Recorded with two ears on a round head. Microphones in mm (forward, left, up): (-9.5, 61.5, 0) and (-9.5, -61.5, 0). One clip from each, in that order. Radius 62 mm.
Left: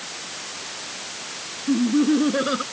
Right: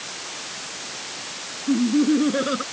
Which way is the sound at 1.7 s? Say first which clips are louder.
Even; 15° left (ahead or behind).